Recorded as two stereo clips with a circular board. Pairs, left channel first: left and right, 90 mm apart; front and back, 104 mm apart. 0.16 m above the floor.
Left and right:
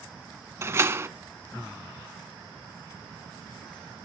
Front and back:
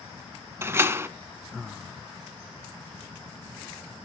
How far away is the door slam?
About 0.9 m.